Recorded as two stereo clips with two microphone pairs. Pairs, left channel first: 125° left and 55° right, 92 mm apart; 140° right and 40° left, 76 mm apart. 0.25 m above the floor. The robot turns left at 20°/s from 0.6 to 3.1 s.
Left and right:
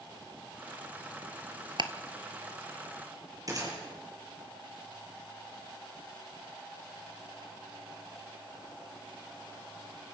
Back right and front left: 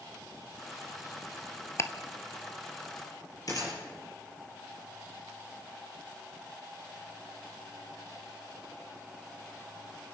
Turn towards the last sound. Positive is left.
turn(degrees=-105)